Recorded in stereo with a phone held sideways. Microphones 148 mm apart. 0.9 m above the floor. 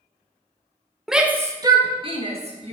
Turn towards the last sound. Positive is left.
turn(degrees=-45)  # may be behind; listen again after turning